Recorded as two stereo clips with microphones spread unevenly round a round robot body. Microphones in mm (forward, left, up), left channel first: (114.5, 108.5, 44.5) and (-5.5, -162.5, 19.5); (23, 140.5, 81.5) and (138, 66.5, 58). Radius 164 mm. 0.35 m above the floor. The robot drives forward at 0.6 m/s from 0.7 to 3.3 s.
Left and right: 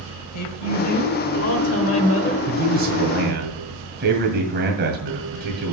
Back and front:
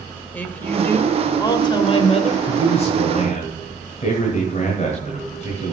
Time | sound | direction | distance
0.3 | a woman speaking | 65° left | 1.7 m
2.5 | a man speaking | 165° right | 1.3 m